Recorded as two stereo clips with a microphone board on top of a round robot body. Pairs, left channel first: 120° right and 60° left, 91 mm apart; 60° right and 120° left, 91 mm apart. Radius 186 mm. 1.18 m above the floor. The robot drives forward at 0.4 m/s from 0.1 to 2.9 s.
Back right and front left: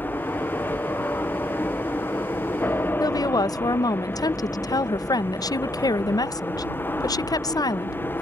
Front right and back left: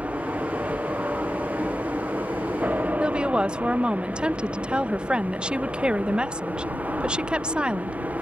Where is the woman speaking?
160° right.